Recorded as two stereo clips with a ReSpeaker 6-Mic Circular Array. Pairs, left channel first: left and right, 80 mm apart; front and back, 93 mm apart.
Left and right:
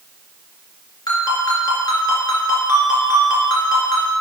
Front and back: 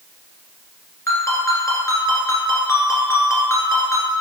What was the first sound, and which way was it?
A ringtone, 60° left.